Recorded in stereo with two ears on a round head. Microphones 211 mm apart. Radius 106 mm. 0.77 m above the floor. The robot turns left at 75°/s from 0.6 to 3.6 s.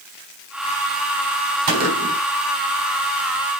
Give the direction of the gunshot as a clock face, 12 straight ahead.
3 o'clock.